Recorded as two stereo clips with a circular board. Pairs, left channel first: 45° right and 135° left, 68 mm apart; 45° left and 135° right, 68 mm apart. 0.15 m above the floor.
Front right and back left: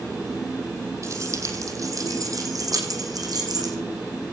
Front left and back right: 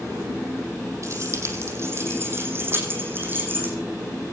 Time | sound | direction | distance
1.0 | keys jangling | straight behind | 4 m